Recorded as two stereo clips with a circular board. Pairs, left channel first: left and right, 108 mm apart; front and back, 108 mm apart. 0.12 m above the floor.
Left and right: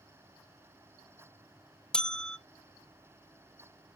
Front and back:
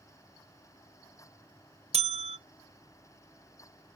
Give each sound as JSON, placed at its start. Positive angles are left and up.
{"t": 1.9, "sound": "a bell", "azimuth_deg": 175, "distance_m": 0.5}